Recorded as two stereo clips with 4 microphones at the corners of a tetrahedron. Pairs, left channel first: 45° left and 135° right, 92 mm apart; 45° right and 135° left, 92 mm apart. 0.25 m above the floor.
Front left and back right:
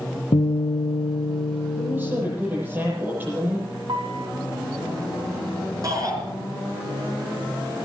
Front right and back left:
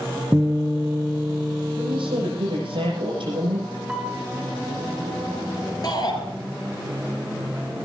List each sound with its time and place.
0.3 s a guitar: 60° left, 3 m
1.8 s a woman speaking: 155° left, 10 m
3.9 s a piano: 140° right, 3 m
5.8 s a shout: 90° right, 4.5 m